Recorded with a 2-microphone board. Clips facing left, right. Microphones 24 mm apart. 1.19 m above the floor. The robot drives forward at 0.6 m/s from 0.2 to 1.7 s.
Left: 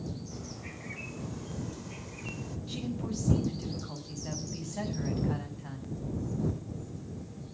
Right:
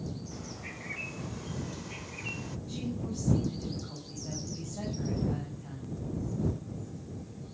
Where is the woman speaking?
75° left (ahead or behind), 7.5 m.